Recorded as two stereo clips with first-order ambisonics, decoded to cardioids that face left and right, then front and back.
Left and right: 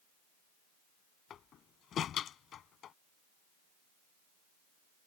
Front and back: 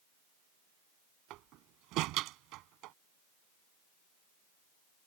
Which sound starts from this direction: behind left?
A door slam, at 1.3 s.